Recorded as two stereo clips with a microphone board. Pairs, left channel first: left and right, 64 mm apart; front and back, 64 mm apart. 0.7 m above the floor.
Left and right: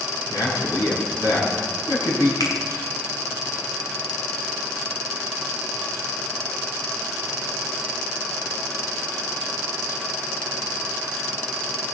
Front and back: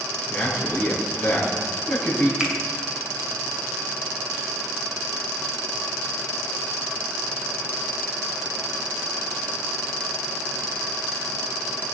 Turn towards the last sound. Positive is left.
turn(degrees=100)